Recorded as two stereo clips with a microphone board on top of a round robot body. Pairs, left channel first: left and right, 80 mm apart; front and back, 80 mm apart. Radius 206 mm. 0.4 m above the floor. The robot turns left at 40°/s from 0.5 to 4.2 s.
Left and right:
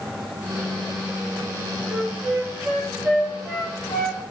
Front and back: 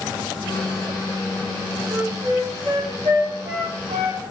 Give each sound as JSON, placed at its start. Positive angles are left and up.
{"t": 1.9, "sound": "a flute", "azimuth_deg": -130, "distance_m": 5.0}